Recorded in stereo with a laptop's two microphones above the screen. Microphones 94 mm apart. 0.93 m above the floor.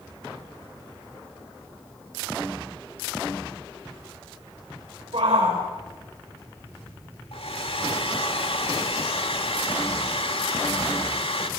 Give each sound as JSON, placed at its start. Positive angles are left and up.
{"t": 5.1, "sound": "a shout", "side_deg": -75, "distance_m": 4.5}
{"t": 7.3, "sound": "a hair dryer", "side_deg": 75, "distance_m": 2.0}